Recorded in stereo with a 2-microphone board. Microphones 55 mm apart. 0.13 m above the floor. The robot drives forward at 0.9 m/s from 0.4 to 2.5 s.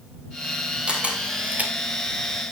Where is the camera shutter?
20° right (ahead or behind), 2 m; by 1.7 s 30° right (ahead or behind), 1.4 m.